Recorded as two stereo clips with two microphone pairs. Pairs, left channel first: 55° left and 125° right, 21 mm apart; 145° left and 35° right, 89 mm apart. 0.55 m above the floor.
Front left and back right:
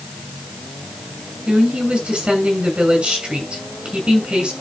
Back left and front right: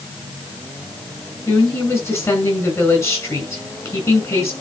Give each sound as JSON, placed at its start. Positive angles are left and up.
{"t": 1.5, "sound": "a woman speaking", "azimuth_deg": -155, "distance_m": 5.5}